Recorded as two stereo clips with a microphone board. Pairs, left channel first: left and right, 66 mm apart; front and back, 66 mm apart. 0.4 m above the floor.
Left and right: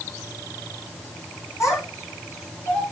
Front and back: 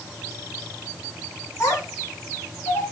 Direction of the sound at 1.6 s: 45° left.